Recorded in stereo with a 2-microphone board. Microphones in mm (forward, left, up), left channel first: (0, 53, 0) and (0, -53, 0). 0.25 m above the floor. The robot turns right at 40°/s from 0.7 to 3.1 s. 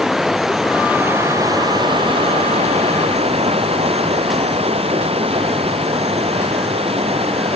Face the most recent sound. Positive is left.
turn(degrees=-80)